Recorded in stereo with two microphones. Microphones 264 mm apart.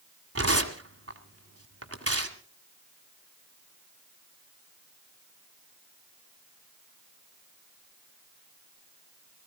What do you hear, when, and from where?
0.3 s tearing paper: 60° right (ahead or behind), 1.8 m